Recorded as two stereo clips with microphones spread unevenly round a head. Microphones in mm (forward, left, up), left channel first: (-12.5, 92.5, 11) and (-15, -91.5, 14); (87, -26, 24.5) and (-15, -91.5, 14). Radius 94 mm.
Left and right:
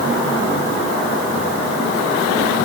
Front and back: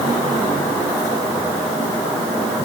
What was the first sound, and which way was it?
Only background noise.